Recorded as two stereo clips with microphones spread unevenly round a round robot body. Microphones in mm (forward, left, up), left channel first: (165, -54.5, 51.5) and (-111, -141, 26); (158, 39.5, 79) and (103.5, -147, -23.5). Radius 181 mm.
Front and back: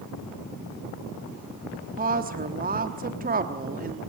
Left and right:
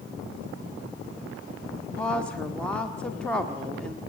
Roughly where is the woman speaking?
Behind right.